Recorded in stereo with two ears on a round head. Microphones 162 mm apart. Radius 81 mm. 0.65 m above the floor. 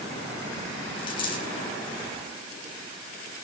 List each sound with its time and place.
1.0 s a dropped coin: 25° left (ahead or behind), 8 m